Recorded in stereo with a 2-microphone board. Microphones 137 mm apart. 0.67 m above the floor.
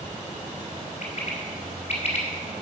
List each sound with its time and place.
1.0 s a bird: 55° left (ahead or behind), 2.5 m